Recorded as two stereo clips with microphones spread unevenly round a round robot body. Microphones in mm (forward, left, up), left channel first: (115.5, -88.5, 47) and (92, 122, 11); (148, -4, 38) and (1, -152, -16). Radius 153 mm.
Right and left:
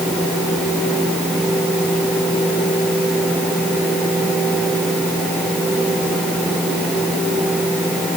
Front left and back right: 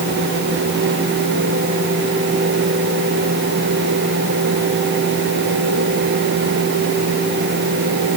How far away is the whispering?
No whispering in this recording.